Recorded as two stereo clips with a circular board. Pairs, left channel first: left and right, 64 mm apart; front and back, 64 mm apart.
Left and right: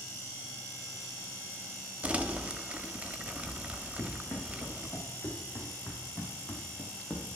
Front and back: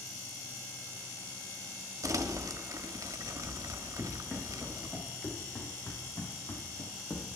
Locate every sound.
2.0 s crumpling: 160° right, 1.4 m
4.0 s running footsteps: 60° left, 4.5 m; by 7.4 s 20° left, 3.5 m